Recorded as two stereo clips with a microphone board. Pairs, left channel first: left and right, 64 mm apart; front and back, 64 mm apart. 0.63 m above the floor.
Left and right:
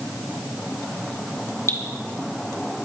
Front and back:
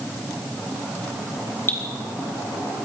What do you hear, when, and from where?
1.7 s dripping: 50° left, 2.5 m